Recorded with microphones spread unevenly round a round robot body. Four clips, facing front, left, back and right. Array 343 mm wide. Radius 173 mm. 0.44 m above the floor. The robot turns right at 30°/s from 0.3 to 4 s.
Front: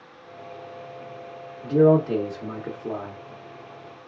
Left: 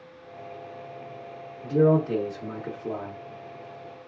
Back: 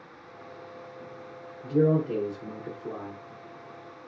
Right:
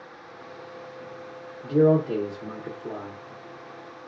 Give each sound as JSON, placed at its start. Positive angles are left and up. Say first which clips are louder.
{"t": 1.6, "sound": "a man speaking", "louder": "right 1 dB, front 6 dB", "azimuth_deg": -30, "distance_m": 0.8}